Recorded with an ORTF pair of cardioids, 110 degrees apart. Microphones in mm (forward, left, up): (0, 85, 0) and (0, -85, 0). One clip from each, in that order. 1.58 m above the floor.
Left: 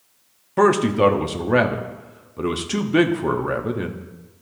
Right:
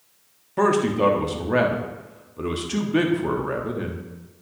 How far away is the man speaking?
About 0.9 m.